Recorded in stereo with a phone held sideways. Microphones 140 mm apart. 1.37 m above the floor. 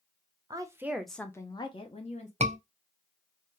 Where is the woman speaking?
30° right (ahead or behind), 0.7 m; by 2.3 s 55° left (ahead or behind), 0.9 m.